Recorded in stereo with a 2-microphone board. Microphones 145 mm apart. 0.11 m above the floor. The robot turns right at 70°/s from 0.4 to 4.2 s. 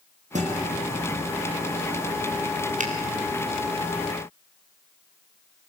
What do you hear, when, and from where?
0.3 s a guitar: 55° right (ahead or behind), 5.5 m; by 0.6 s 70° right (ahead or behind), 5.5 m
2.8 s a finger snap: 60° right (ahead or behind), 3.5 m; by 2.9 s 65° right (ahead or behind), 3.5 m